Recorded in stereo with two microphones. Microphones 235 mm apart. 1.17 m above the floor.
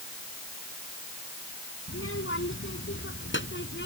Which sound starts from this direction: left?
A child speaking, at 1.9 s.